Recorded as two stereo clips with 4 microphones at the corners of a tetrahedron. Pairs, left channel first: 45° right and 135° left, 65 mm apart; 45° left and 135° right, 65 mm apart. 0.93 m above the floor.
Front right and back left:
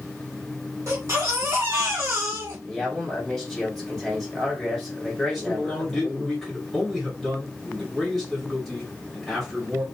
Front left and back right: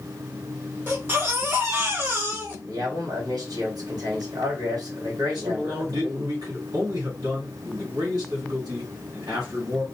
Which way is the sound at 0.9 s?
175° left.